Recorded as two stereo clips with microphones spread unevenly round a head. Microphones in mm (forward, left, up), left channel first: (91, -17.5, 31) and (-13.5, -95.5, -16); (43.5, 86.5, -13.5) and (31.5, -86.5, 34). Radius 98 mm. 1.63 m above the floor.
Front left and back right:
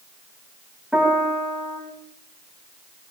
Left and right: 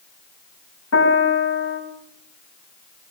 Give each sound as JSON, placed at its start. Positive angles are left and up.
{"t": 0.9, "sound": "a piano", "azimuth_deg": 125, "distance_m": 4.0}